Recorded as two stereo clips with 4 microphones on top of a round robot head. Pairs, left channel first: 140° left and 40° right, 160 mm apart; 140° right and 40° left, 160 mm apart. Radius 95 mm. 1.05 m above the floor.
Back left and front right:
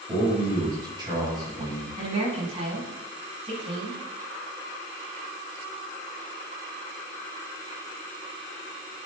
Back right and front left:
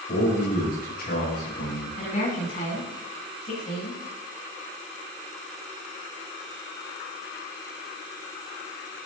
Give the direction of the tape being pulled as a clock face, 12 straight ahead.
I don't hear tape being pulled.